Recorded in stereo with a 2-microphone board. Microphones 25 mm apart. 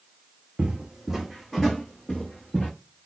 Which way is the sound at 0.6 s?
30° right (ahead or behind).